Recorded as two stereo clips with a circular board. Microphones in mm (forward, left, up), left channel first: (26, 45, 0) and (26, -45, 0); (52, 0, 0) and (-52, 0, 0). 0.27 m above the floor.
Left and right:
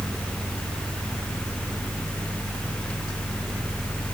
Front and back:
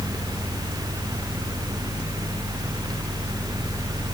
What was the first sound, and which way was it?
Only background noise.